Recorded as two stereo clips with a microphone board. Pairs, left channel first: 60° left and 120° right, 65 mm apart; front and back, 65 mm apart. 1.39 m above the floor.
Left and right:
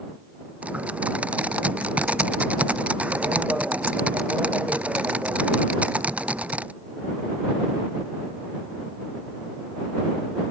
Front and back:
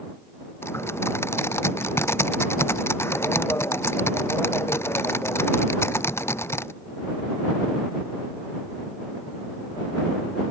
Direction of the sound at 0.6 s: 50° right.